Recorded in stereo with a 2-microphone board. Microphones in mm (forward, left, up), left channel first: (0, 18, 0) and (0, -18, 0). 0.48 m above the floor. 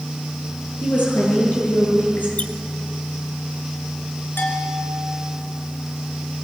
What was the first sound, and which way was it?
A woman speaking, 60° left (ahead or behind).